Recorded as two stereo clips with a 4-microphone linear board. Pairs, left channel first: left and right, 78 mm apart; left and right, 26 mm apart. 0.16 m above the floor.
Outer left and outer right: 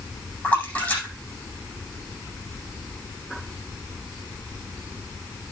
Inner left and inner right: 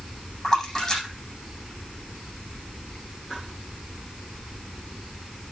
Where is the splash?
15° left (ahead or behind), 9 m.